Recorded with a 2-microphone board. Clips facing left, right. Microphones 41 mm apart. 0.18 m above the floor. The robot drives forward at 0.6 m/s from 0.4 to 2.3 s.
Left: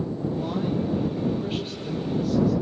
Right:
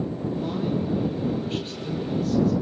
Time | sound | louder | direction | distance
0.3 | a man speaking | even | 5° left (ahead or behind) | 6 m